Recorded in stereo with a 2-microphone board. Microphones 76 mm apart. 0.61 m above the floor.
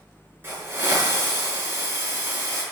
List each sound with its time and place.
0.4 s a hiss: 30° right (ahead or behind), 5 m